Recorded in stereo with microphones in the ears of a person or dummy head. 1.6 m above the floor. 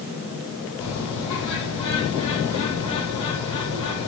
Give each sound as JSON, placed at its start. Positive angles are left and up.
{"t": 0.8, "sound": "a bird", "side_deg": 30, "distance_m": 9.5}